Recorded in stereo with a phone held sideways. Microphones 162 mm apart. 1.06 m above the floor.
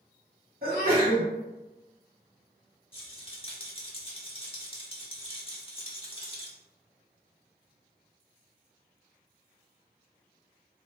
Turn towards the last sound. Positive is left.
turn(degrees=35)  # may be behind; listen again after turning